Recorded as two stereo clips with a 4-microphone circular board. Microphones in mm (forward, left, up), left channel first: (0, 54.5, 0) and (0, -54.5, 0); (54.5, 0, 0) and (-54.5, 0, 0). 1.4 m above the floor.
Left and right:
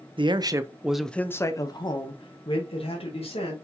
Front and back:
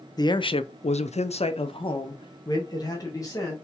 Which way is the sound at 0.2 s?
50° right.